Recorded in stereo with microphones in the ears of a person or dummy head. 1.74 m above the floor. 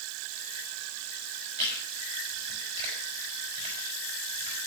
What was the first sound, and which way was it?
Chewing, 40° right (ahead or behind).